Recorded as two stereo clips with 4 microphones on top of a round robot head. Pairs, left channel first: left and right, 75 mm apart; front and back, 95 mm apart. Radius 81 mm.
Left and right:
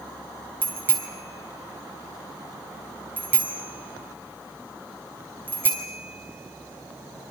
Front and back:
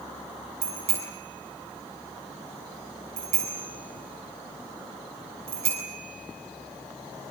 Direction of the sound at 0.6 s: 155° right.